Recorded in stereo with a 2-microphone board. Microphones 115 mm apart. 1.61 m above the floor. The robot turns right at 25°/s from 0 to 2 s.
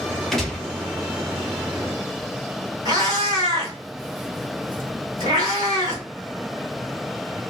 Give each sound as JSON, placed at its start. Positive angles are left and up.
{"t": 0.3, "sound": "a gunshot", "side_deg": 5, "distance_m": 0.9}
{"t": 2.9, "sound": "a cat meowing", "side_deg": -30, "distance_m": 1.4}